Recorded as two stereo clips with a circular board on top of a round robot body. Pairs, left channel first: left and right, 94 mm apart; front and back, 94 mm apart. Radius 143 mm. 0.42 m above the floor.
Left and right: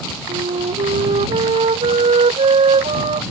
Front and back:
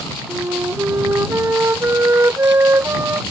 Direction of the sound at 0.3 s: 115° right.